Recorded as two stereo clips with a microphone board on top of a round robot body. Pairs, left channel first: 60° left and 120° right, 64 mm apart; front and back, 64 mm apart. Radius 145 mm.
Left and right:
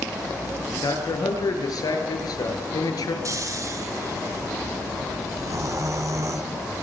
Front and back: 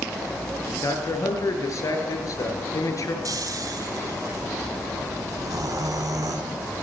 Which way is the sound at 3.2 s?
155° right.